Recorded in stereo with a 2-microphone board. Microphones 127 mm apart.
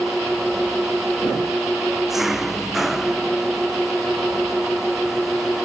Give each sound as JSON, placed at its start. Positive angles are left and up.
{"t": 0.0, "sound": "an engine running", "side_deg": -5}